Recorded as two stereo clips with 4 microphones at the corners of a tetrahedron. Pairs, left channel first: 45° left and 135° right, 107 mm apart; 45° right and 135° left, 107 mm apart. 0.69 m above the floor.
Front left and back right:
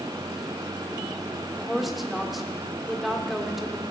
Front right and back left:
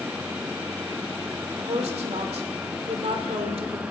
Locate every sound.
1.6 s a woman speaking: 135° left, 1.8 m